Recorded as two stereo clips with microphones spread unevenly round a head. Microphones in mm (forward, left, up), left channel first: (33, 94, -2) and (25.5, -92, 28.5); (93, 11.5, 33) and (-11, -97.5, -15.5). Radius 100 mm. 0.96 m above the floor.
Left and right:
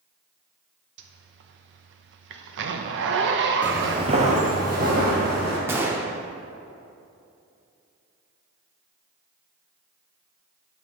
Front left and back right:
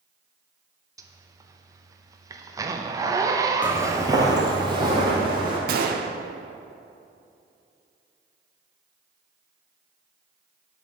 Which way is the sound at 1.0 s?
85° right.